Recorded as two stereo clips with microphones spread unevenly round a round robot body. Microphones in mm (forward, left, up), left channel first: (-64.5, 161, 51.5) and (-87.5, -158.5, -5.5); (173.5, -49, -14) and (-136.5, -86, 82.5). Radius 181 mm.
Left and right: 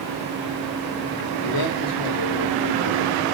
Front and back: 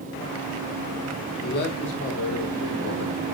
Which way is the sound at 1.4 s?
60° left.